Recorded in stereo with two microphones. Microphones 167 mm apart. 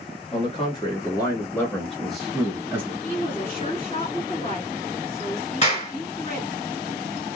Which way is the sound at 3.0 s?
35° left (ahead or behind).